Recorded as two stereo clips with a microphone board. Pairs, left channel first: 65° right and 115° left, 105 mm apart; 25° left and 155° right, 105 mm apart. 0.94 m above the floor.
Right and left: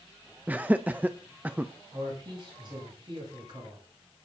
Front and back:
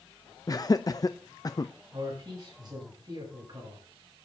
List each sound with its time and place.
0.5 s laughter: 45° left, 0.5 m
1.9 s a man speaking: 155° left, 9 m